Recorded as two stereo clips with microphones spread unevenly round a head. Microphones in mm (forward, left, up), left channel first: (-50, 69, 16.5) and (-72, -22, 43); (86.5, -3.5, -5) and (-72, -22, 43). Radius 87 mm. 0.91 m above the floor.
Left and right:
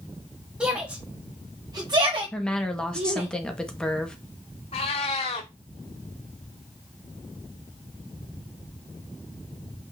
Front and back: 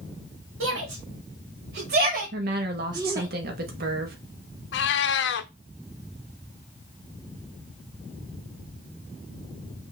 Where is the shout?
170° left, 2 m; by 3.3 s 90° right, 1.9 m.